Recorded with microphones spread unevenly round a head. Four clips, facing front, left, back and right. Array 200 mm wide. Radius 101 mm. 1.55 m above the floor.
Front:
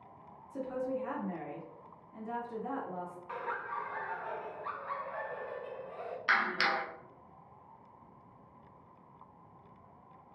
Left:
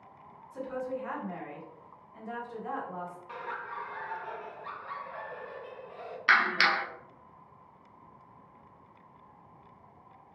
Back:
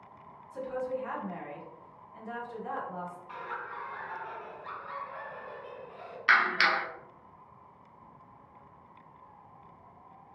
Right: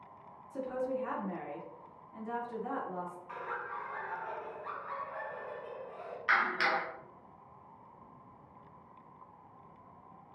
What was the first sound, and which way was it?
A woman speaking, 35° right.